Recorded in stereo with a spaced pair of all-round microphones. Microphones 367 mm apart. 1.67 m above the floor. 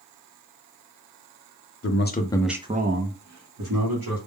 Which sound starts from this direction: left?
A man speaking, at 1.8 s.